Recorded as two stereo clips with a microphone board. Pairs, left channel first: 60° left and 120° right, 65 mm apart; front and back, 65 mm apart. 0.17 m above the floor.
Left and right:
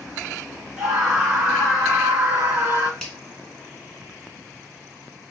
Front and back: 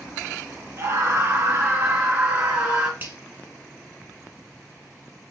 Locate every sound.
0.8 s a scream: 160° left, 2.5 m; by 2.9 s 130° right, 1.8 m
3.0 s a finger snap: 140° left, 1.5 m